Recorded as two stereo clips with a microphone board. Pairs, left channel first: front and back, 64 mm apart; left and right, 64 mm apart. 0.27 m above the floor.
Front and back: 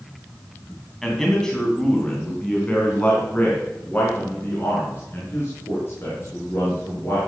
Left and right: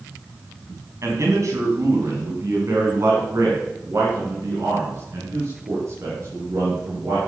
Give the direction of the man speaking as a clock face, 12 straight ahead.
3 o'clock.